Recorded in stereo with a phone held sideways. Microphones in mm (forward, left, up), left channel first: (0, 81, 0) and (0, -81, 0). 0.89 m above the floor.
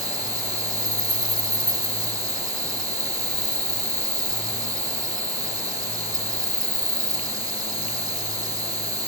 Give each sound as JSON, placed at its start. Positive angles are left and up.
{"t": 0.0, "sound": "an insect", "side_deg": -20}